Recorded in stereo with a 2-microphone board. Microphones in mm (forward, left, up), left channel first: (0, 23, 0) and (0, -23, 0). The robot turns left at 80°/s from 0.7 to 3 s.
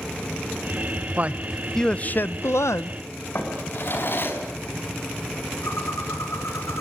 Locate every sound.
1.2 s a man speaking: 140° right, 0.9 m; by 3.0 s 70° left, 0.9 m
3.4 s a drawer: 50° left (ahead or behind), 5 m
5.6 s a bird: 85° left, 5.5 m